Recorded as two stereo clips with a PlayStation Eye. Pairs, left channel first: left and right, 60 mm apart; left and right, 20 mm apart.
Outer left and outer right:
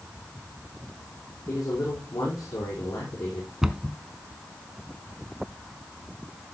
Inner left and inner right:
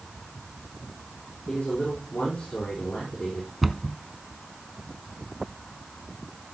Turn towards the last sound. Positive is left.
turn(degrees=-10)  # may be behind; listen again after turning